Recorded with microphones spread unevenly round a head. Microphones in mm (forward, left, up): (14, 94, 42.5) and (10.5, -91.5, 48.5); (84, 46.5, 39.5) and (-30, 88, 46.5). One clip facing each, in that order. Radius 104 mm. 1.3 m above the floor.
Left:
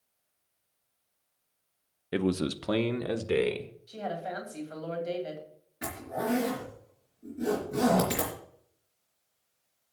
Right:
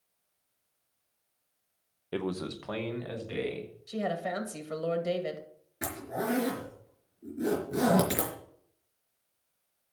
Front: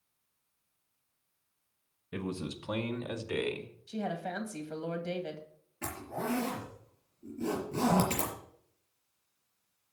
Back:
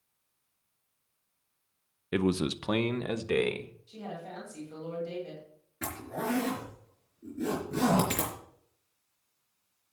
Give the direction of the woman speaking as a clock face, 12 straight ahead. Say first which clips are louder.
Right 4 dB, front 7 dB; 2 o'clock.